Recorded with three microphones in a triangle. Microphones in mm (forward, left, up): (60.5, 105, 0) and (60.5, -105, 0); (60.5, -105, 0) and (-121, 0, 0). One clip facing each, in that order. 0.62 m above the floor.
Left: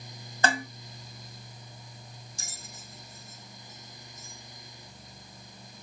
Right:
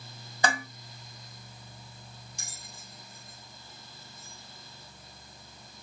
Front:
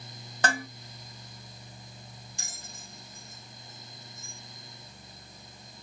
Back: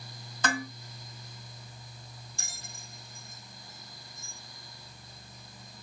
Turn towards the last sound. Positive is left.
turn(degrees=-100)